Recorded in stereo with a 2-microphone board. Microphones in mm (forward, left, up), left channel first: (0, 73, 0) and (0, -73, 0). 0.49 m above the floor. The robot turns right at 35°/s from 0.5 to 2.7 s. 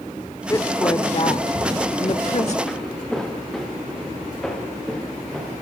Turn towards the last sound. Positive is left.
turn(degrees=5)  # may be behind; listen again after turning